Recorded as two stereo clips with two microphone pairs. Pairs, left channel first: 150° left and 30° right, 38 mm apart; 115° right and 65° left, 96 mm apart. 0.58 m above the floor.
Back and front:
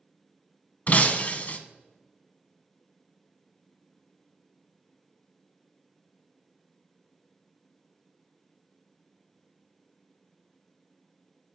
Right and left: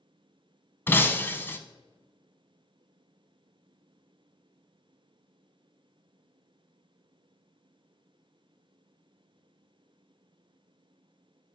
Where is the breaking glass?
175° right, 0.6 m.